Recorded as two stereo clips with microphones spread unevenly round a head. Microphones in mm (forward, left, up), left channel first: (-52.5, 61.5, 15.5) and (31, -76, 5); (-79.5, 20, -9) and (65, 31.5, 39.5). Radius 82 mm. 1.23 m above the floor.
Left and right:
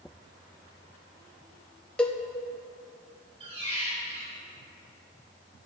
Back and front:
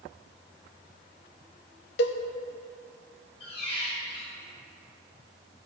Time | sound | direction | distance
2.0 | a cowbell | 160° right | 0.6 m
3.4 | a squeak | 110° right | 3 m